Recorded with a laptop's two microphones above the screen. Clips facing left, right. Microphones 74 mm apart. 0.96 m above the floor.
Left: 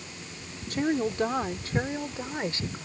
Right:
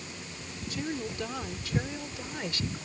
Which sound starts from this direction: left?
A woman speaking, at 0.7 s.